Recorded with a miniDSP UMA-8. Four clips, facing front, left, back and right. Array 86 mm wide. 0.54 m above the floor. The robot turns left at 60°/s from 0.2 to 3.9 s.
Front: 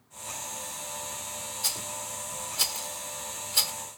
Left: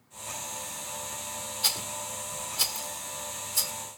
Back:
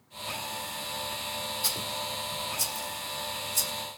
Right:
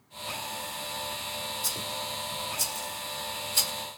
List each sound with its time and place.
1.6 s a rattle: 85° left, 1.2 m; by 3.7 s 40° right, 1.2 m